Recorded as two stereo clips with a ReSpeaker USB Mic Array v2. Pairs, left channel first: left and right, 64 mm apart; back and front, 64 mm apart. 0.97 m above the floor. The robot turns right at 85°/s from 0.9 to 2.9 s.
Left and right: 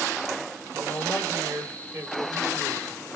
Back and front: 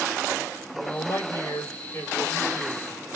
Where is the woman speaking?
140° left, 1.7 m; by 2.9 s 55° right, 1.7 m.